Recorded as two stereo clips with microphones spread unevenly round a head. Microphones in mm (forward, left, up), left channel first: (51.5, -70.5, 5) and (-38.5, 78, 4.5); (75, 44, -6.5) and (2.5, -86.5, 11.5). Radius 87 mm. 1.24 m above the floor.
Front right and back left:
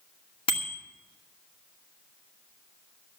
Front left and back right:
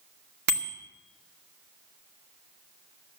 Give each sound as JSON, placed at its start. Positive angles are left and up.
{"t": 0.5, "sound": "a bicycle bell", "azimuth_deg": -120, "distance_m": 2.5}